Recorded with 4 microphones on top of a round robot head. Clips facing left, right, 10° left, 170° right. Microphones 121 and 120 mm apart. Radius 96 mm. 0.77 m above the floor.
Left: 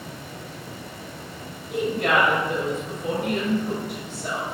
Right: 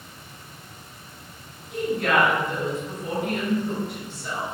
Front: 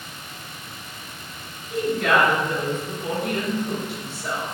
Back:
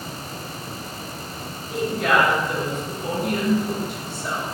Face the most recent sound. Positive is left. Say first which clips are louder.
# left 1 dB, even
turn(degrees=105)